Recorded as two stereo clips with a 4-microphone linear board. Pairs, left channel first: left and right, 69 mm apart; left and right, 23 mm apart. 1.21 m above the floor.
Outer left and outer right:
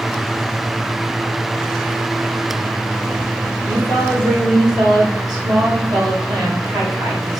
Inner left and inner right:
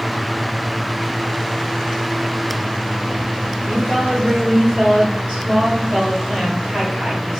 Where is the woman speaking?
75° right (ahead or behind), 5 m.